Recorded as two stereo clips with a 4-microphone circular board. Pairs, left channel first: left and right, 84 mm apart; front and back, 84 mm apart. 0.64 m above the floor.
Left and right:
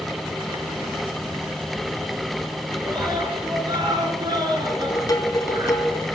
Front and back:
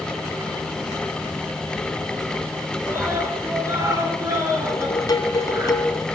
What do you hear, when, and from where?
2.9 s a scream: 120° right, 9.5 m; by 5.7 s 130° right, 11.5 m
4.7 s dishes clattering: 45° left, 3 m